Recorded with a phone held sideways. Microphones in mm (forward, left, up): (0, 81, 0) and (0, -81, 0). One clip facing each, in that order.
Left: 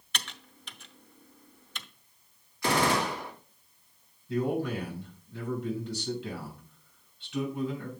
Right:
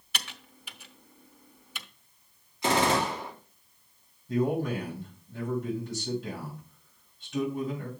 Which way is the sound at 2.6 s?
20° right (ahead or behind).